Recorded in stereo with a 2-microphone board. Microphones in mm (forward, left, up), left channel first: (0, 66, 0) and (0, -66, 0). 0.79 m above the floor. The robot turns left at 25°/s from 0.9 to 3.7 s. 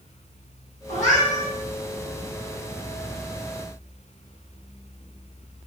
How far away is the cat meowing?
About 1.7 m.